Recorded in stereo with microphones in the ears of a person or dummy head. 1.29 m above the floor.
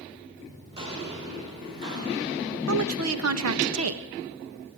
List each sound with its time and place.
0.7 s footsteps: 30° right (ahead or behind), 5 m; by 2.6 s 25° right (ahead or behind), 7 m
2.7 s a woman speaking: 85° right, 1.6 m